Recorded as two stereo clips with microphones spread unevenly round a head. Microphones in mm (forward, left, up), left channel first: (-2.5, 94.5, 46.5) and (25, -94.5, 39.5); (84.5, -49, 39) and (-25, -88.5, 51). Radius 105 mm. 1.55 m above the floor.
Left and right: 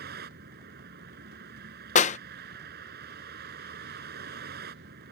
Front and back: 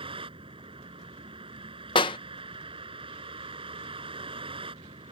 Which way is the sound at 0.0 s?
120° right.